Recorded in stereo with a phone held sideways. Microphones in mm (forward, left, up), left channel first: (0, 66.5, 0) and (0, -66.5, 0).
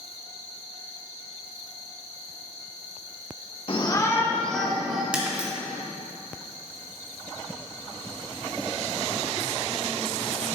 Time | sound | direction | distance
3.7 | a shout | 45° left (ahead or behind) | 1.3 m
5.1 | breaking glass | 10° right (ahead or behind) | 2 m